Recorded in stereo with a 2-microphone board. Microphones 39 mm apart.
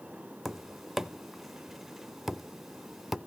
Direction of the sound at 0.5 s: 5° right (ahead or behind).